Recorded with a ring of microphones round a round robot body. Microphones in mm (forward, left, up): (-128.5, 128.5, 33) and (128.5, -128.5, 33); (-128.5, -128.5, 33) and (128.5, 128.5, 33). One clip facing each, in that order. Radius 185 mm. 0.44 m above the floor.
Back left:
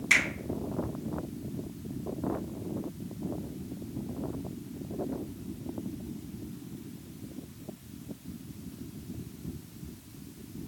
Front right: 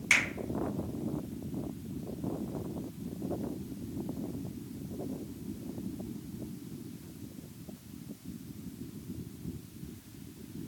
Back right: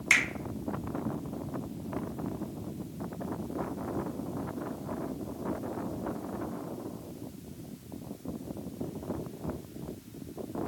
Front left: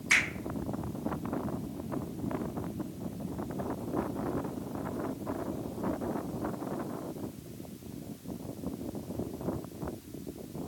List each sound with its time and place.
0.1 s a finger snap: 120° right, 1.8 m